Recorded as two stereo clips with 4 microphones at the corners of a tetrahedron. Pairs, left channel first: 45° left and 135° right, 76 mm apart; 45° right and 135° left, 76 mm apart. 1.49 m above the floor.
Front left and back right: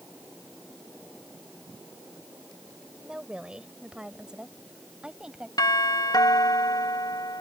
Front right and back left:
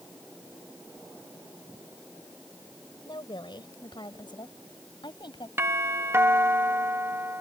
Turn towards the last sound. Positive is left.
turn(degrees=75)